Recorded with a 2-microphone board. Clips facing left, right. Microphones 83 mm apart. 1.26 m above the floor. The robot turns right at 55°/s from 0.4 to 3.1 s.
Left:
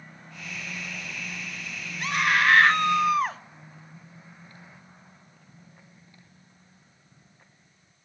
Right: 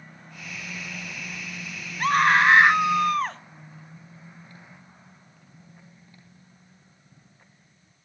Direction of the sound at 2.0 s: 55° right.